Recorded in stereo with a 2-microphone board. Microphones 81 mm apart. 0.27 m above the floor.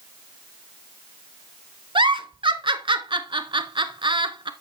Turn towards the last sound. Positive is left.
turn(degrees=-80)